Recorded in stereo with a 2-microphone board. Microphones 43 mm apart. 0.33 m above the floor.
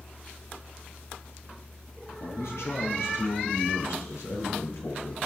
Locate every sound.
2.2 s a man speaking: 80° left, 6.5 m